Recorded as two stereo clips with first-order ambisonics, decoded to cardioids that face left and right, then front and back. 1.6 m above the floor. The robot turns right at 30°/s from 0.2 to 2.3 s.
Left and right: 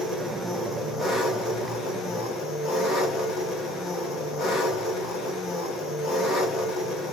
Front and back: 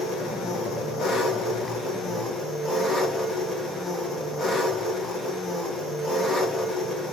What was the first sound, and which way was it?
An engine running, 5° left.